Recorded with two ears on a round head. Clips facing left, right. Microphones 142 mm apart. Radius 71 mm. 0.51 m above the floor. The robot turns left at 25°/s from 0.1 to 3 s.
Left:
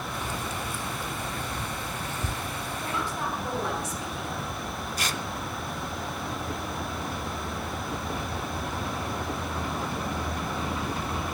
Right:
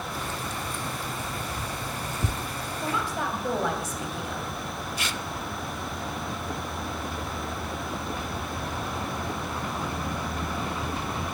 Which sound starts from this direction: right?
A woman speaking, at 2.8 s.